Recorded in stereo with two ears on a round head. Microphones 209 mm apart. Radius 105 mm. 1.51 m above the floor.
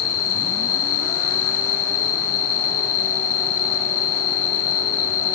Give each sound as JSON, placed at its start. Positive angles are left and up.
{"t": 0.0, "sound": "an insect", "side_deg": 70, "distance_m": 3.5}